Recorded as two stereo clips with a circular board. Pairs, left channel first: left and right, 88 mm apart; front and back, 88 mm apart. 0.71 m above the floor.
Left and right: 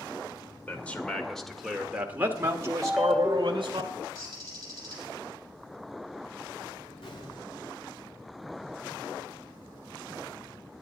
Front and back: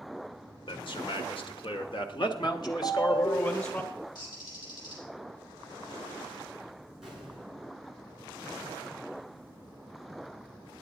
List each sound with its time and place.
0.7 s a man speaking: 20° left, 2 m; by 3.8 s 60° right, 2 m
2.8 s a ringtone: 5° right, 1.1 m
4.2 s a bird: 40° right, 6 m
7.0 s an explosion: 95° left, 8 m